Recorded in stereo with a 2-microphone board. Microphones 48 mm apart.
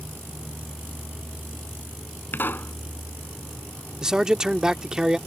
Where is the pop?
45° left (ahead or behind).